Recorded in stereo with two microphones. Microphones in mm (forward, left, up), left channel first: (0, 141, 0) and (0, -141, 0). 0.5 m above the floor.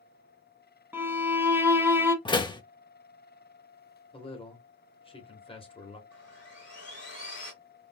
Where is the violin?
10° right (ahead or behind), 0.6 m.